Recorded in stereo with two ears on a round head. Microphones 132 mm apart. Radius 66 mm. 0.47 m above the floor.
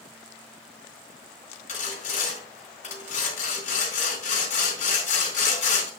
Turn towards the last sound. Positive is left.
turn(degrees=55)  # may be behind; listen again after turning